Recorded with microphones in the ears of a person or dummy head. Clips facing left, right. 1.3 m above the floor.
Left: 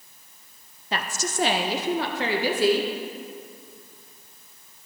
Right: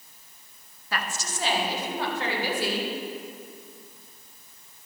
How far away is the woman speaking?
About 0.6 m.